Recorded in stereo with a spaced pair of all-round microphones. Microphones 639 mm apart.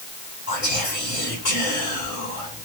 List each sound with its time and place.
0.5 s whispering: 70° left (ahead or behind), 1.7 m